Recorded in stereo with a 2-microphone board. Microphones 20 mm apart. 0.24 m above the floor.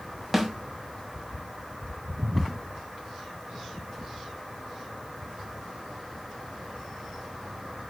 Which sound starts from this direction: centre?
A snare drum, at 0.3 s.